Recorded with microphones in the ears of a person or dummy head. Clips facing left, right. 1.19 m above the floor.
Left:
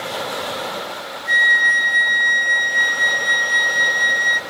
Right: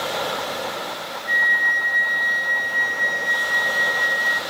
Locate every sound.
1.3 s a flute: 60° left (ahead or behind), 0.7 m